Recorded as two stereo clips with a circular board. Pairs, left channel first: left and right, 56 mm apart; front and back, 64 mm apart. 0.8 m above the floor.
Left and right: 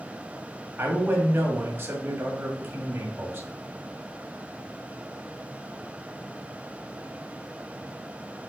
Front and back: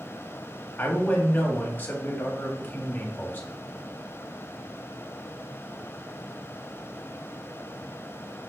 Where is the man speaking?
55° right, 1.8 m.